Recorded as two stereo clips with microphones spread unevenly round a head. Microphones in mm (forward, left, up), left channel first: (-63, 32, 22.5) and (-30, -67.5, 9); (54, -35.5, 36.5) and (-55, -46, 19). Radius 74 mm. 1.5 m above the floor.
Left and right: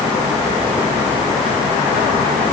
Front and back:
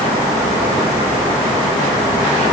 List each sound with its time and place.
Only background noise.